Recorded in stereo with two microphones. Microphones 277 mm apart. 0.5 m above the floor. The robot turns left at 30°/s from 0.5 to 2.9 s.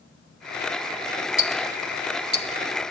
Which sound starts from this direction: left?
Ticking, at 1.4 s.